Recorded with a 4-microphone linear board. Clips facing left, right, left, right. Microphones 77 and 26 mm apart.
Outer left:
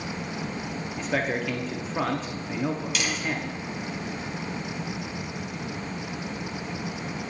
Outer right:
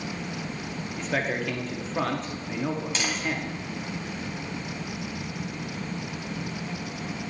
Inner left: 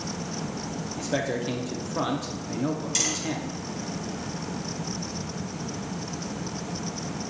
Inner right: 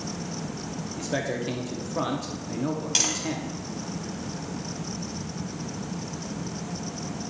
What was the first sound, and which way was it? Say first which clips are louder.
A man speaking: outer left 1 dB, inner left 1 dB; 5° left (ahead or behind).